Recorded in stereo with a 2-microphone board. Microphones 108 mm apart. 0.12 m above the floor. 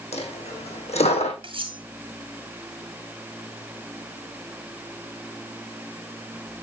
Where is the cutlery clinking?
55° right (ahead or behind), 1.2 m.